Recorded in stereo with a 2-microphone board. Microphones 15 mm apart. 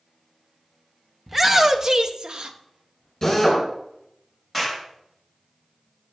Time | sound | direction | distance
1.3 | a shout | 10° right (ahead or behind) | 0.9 m
3.2 | a drill | 25° left (ahead or behind) | 3.5 m
4.5 | a clap | 5° right (ahead or behind) | 3.5 m